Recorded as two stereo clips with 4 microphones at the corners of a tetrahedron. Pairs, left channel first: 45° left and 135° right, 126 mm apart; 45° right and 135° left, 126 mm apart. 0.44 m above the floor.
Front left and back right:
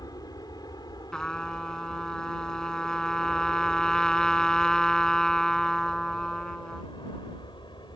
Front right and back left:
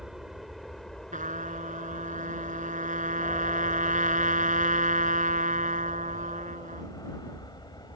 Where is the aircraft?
50° left; by 8.0 s 5° left.